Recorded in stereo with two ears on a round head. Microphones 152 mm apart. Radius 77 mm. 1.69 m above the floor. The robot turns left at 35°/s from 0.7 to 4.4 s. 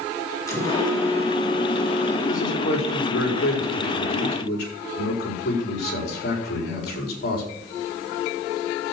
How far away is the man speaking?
About 4.5 m.